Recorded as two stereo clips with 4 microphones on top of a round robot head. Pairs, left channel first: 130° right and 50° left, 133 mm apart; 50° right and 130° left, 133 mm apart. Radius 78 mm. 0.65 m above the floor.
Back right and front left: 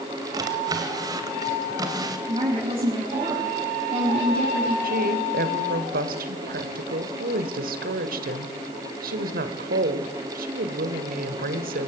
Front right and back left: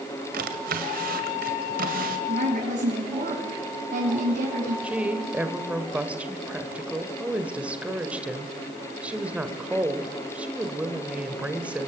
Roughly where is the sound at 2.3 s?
Left.